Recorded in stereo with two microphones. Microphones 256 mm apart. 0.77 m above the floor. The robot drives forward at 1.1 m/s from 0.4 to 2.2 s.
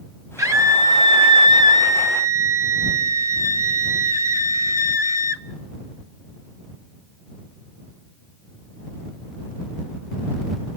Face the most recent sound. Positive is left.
turn(degrees=-10)  # may be behind; listen again after turning